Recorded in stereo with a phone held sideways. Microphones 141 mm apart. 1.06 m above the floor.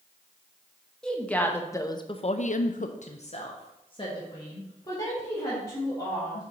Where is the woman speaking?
5° left (ahead or behind), 1.1 m; by 6.4 s 25° left (ahead or behind), 3 m.